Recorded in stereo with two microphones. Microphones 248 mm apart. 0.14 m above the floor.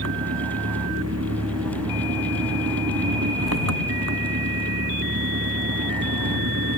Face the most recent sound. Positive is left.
turn(degrees=-80)